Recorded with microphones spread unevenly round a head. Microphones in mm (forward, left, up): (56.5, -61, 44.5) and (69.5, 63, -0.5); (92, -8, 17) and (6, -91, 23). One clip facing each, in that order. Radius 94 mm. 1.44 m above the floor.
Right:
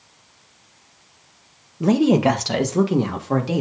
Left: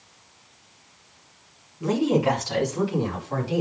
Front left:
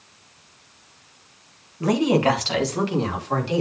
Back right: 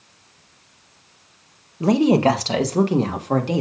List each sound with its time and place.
1.8 s a woman speaking: 75° right, 1.6 m; by 3.6 s 100° right, 3 m